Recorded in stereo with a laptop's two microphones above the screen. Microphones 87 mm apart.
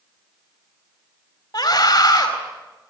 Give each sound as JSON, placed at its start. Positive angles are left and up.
{"t": 1.5, "sound": "a scream", "side_deg": 60, "distance_m": 4.5}